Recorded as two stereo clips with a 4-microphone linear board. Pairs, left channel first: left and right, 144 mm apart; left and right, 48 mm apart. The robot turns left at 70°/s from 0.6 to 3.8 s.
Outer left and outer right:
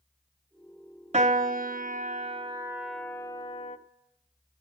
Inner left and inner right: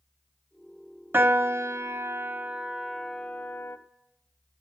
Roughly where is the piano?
Ahead right.